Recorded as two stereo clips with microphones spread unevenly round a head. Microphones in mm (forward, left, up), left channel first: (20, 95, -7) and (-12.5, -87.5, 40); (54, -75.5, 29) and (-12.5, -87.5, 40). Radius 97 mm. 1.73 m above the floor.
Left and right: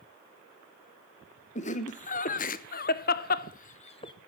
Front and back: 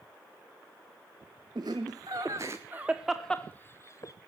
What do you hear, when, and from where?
1.6 s laughter: 140° left, 1.5 m; by 4.1 s 10° left, 0.7 m